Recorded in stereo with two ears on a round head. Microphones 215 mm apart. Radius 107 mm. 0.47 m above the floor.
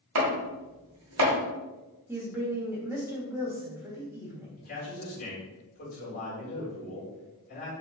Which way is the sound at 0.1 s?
70° right (ahead or behind).